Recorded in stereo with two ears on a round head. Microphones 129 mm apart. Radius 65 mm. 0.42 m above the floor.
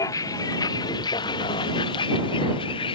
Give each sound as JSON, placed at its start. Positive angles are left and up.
{"t": 0.0, "sound": "a vehicle", "side_deg": 25}